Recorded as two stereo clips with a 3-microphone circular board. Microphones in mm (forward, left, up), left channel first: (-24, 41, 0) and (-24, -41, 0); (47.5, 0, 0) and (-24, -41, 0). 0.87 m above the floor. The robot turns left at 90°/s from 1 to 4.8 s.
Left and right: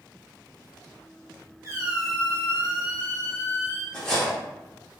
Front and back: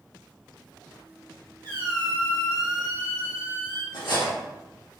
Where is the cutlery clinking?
20° left, 1.0 m; by 4.3 s 15° right, 1.0 m.